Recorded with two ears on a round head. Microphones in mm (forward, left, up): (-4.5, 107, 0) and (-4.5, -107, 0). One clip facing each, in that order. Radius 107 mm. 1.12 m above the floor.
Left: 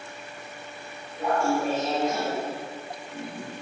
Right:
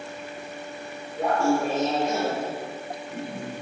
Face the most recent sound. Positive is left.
turn(degrees=-50)  # may be behind; listen again after turning